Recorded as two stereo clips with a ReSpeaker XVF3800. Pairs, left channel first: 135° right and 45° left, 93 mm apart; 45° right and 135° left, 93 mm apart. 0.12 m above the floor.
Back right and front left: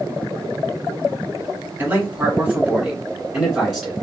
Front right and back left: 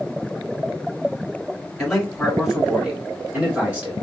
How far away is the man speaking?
About 1.6 m.